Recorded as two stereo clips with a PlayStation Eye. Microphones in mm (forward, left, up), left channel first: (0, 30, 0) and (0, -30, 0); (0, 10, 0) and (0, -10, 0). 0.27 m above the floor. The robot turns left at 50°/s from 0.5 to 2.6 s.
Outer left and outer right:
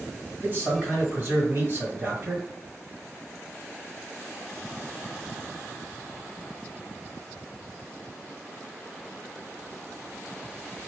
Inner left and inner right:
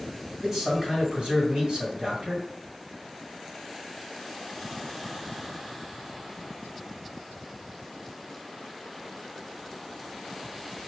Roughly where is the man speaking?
Ahead right.